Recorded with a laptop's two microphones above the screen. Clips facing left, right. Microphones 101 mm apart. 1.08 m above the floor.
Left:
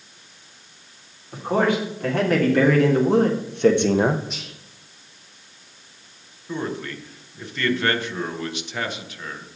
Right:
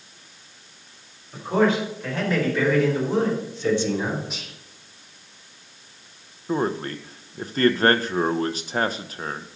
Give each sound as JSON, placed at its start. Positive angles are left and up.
{"t": 1.3, "sound": "a man speaking", "side_deg": 55, "distance_m": 3.0}
{"t": 4.3, "sound": "whispering", "side_deg": -5, "distance_m": 4.5}
{"t": 6.5, "sound": "a man speaking", "side_deg": -40, "distance_m": 0.6}